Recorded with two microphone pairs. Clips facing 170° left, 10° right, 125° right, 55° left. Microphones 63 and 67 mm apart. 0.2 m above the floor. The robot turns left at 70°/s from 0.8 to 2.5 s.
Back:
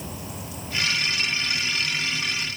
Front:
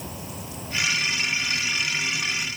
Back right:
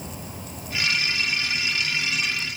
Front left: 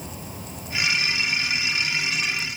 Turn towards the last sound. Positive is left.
No sound to turn to.